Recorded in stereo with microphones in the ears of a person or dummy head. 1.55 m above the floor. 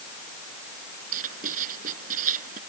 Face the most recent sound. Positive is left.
turn(degrees=-45)  # may be behind; listen again after turning